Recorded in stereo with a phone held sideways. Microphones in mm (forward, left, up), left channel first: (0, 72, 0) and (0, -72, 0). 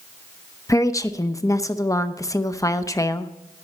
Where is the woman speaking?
25° left (ahead or behind), 0.6 m.